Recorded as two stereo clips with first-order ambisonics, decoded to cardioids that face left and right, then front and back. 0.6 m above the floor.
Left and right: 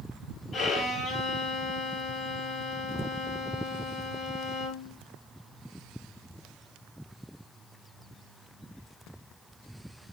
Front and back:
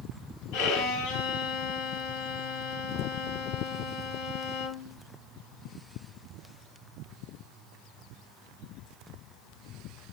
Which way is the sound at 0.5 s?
20° left.